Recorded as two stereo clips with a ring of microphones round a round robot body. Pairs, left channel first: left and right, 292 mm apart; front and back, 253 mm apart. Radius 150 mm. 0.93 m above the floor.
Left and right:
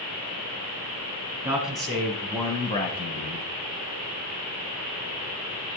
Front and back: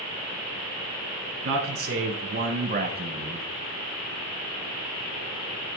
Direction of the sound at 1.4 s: 155° right.